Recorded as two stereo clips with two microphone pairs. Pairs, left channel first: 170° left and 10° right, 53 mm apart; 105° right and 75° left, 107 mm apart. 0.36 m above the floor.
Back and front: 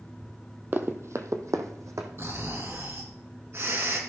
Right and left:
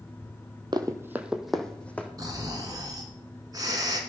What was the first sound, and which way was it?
Running footsteps, 35° left.